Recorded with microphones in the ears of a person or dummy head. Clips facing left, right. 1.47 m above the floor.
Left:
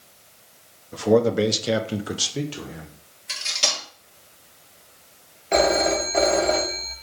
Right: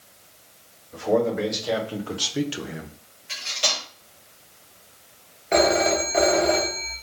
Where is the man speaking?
55° left (ahead or behind), 0.9 m; by 3.0 s 40° right (ahead or behind), 0.6 m.